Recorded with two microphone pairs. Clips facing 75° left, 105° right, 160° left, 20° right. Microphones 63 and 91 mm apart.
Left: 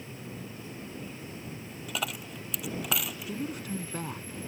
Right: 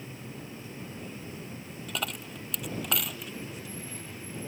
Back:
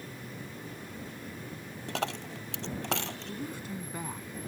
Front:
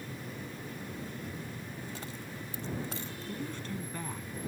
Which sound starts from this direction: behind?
A dropped coin, at 1.9 s.